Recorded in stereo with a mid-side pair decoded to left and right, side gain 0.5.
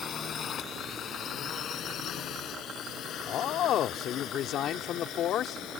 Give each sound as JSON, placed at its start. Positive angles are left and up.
{"t": 0.0, "sound": "a drone", "azimuth_deg": 50}
{"t": 3.2, "sound": "a man speaking", "azimuth_deg": 60}